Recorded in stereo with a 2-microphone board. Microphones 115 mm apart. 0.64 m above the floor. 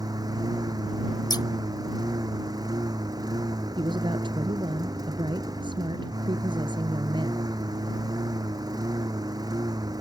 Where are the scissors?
35° left (ahead or behind).